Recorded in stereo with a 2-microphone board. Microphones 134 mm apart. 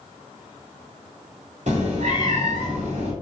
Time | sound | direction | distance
1.7 | a cat meowing | 60° right (ahead or behind) | 1.3 m